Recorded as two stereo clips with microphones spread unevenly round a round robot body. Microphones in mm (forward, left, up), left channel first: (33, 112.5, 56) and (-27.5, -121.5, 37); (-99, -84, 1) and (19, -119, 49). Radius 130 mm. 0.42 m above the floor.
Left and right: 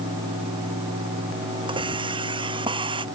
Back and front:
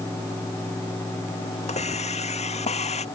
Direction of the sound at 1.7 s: 175° right.